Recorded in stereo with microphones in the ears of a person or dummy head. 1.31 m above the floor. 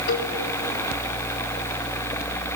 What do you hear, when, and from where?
0.1 s a cowbell: 65° left (ahead or behind), 3 m